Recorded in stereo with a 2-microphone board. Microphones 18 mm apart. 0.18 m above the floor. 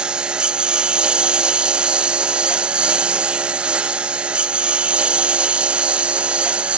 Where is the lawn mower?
55° right (ahead or behind); by 6.8 s 80° right.